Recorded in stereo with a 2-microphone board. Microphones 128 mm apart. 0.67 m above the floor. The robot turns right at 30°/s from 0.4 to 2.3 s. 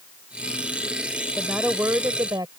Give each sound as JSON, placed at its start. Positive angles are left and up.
{"t": 1.4, "sound": "a woman speaking", "side_deg": -5}